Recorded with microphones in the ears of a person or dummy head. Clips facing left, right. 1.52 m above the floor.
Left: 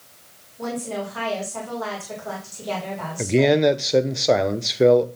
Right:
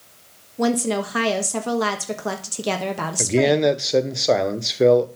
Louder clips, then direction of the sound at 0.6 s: Right 7 dB; 75° right (ahead or behind).